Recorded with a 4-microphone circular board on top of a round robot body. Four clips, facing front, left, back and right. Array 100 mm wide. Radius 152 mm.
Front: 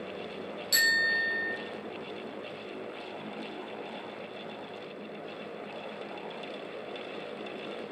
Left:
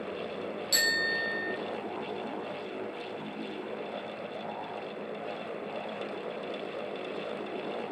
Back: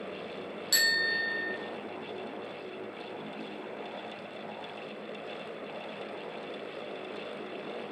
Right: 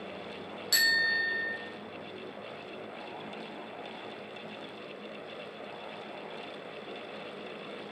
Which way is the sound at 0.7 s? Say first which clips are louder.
Right 2 dB, front 2 dB; 130° right.